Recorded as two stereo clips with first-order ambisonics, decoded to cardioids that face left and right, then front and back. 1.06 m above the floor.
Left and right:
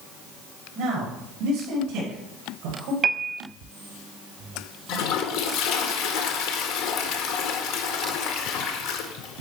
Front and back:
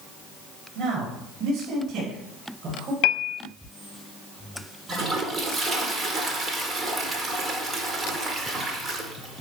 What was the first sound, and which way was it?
A man speaking, 135° right.